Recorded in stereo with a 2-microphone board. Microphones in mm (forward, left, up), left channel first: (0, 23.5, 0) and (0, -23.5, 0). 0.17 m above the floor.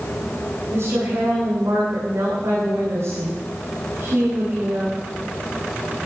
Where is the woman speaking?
70° right (ahead or behind), 9 m.